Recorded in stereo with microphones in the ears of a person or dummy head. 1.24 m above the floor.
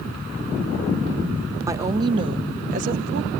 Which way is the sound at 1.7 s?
20° right (ahead or behind).